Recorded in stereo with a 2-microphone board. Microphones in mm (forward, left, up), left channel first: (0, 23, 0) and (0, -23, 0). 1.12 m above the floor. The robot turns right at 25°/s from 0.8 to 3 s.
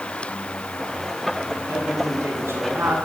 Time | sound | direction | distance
1.7 | a man speaking | 100° right | 9 m